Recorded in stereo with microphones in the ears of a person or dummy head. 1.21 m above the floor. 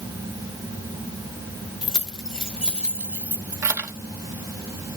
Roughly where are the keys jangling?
Centre.